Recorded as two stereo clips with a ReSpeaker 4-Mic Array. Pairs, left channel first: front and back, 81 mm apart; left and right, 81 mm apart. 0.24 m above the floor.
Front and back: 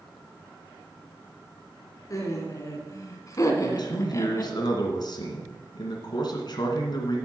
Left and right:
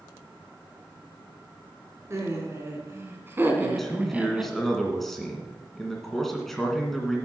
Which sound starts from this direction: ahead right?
Laughter, at 2.1 s.